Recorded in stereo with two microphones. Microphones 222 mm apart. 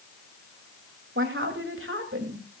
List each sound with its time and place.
1.1 s a woman speaking: 65° right (ahead or behind), 3.5 m